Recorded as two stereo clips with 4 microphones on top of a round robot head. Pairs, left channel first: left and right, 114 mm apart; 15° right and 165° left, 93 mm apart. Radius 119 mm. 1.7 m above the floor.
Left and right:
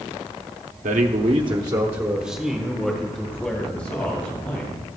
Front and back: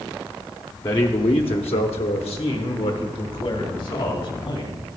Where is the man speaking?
70° right, 0.8 m; by 4.8 s 15° left, 3 m.